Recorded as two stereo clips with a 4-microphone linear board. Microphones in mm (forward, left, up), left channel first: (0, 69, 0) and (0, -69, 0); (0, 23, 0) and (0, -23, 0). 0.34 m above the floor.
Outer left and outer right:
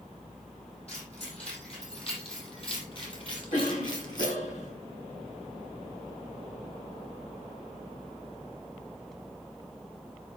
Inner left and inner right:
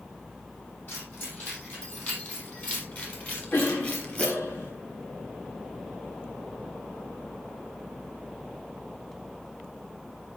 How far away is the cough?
About 3 m.